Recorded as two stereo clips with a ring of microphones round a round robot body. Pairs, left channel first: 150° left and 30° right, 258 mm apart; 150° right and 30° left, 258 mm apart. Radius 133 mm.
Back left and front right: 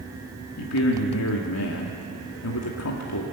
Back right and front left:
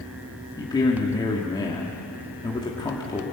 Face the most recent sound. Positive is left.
turn(degrees=135)